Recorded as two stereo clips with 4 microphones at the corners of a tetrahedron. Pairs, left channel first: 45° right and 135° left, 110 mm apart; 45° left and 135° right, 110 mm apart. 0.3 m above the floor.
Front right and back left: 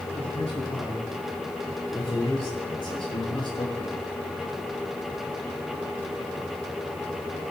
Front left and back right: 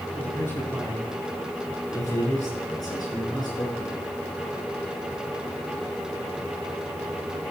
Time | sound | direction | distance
0.2 | a man speaking | 25° right | 6.5 m